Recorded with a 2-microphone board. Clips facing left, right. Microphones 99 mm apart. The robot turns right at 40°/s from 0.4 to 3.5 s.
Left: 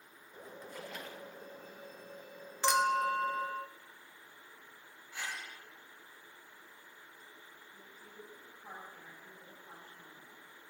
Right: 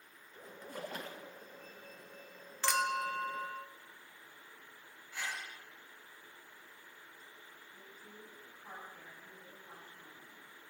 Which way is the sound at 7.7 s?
15° left (ahead or behind).